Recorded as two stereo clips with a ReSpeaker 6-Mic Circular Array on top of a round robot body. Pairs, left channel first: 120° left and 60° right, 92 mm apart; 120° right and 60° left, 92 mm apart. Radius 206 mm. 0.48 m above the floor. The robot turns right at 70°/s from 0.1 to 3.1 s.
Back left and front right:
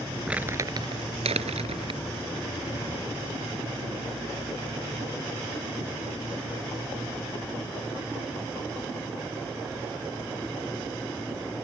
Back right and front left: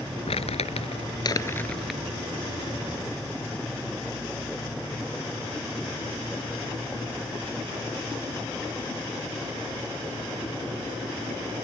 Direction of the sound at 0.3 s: 140° right.